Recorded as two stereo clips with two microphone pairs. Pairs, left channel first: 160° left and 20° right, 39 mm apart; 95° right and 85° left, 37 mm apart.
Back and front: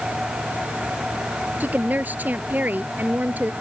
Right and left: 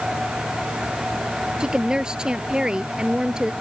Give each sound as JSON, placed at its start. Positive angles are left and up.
{"t": 1.6, "sound": "a woman speaking", "azimuth_deg": 20}